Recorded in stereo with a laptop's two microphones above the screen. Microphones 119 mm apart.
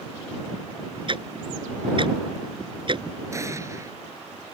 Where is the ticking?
45° right (ahead or behind).